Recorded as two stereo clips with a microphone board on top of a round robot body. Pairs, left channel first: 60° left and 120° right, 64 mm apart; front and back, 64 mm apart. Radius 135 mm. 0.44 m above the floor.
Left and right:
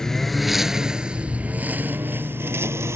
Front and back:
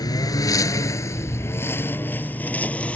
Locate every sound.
0.0 s a lawn mower: 25° right; by 3.0 s 70° right